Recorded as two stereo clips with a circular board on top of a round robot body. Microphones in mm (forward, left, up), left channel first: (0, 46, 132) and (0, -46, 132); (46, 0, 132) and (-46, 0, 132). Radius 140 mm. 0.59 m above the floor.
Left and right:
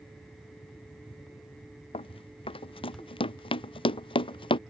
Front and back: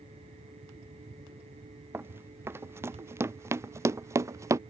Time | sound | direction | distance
1.9 | running footsteps | 115° left | ?